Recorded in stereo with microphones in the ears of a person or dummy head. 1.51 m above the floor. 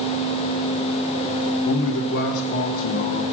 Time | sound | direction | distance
1.6 | a man speaking | 65° left (ahead or behind) | 0.9 m